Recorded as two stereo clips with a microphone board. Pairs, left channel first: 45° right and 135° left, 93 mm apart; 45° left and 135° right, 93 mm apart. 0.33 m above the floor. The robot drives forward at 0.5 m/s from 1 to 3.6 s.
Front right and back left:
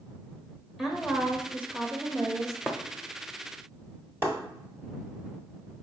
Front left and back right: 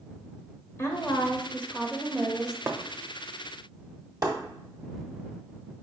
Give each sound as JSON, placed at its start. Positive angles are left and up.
{"t": 0.8, "sound": "a woman speaking", "azimuth_deg": 50, "distance_m": 0.9}
{"t": 2.7, "sound": "breaking glass", "azimuth_deg": -160, "distance_m": 0.8}